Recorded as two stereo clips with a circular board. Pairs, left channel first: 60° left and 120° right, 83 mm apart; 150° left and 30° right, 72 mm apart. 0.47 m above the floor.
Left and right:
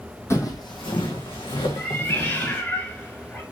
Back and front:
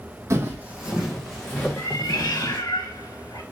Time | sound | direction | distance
0.3 | footsteps | 10° left | 0.9 m
1.8 | a cat meowing | 125° left | 1.3 m